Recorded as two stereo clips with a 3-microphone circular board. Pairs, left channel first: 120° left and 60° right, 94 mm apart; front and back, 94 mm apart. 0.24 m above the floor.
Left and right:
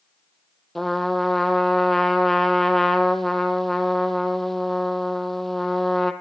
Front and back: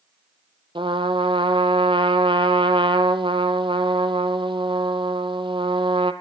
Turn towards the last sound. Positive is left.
turn(degrees=-150)